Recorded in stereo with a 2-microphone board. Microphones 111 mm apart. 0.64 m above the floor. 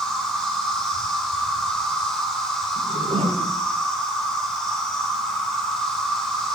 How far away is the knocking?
No knocking in this recording.